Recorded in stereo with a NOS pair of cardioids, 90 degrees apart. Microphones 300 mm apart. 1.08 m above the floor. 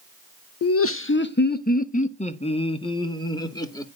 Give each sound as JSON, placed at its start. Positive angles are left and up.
{"t": 0.6, "sound": "laughter", "azimuth_deg": 60, "distance_m": 0.8}